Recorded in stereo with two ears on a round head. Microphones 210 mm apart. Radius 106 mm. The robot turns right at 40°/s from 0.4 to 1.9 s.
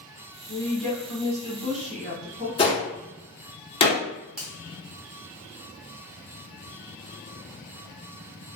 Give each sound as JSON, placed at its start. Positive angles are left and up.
{"t": 0.5, "sound": "a woman speaking", "azimuth_deg": 170, "distance_m": 1.1}
{"t": 2.6, "sound": "a gunshot", "side_deg": 25, "distance_m": 0.6}
{"t": 4.4, "sound": "a finger snap", "side_deg": -5, "distance_m": 0.8}